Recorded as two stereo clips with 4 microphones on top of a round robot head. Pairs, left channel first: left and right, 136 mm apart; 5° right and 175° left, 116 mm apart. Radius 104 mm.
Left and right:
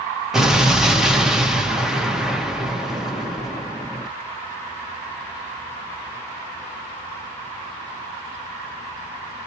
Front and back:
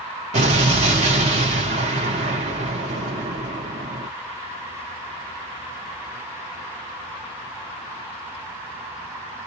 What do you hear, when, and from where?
0.3 s an explosion: 175° right, 0.7 m